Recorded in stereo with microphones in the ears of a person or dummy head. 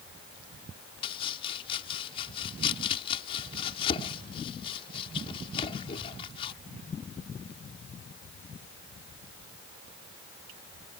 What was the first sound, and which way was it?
Chopping, 30° left (ahead or behind).